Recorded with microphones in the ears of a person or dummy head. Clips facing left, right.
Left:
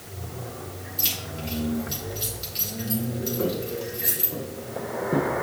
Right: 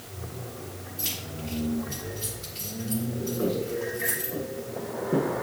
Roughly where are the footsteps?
Left.